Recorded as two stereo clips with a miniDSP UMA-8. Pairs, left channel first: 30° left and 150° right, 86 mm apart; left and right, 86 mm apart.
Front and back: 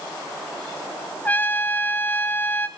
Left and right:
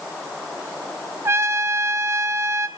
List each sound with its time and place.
1.2 s a trumpet: 35° right, 1.3 m